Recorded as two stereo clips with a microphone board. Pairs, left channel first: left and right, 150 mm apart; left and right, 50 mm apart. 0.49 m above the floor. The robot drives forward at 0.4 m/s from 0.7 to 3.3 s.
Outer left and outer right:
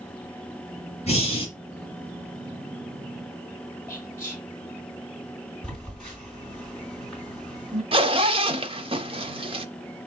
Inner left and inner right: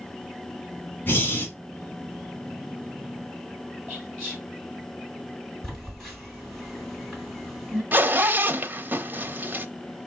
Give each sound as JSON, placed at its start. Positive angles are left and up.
{"t": 1.1, "sound": "breathing", "side_deg": 45, "distance_m": 1.3}
{"t": 3.9, "sound": "whispering", "side_deg": 15, "distance_m": 3.5}
{"t": 5.6, "sound": "a phone buzzing", "side_deg": 5, "distance_m": 3.5}
{"t": 7.9, "sound": "a zipper", "side_deg": -35, "distance_m": 0.6}